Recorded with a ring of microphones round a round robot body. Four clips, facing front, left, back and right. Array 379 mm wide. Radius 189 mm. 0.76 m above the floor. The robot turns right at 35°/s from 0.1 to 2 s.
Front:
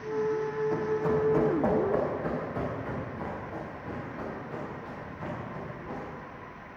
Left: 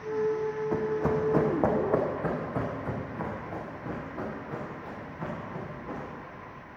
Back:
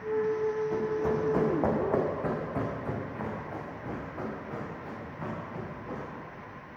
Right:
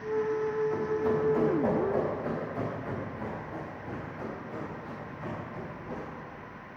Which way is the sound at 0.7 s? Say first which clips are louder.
Left 1 dB, front 1 dB; 75° left.